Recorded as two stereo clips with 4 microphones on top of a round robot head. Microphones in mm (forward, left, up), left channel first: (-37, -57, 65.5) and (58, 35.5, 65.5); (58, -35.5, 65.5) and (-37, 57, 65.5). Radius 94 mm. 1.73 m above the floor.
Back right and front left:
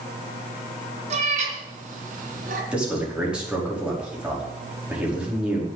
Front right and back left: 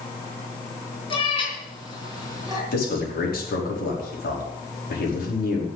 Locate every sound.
1.1 s a cat meowing: 5° left, 3.5 m; by 2.6 s 20° left, 4 m
2.7 s a man speaking: 40° right, 5 m